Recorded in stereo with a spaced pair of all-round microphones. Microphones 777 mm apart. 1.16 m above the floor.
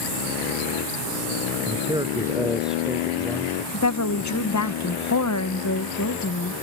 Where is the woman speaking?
25° left (ahead or behind).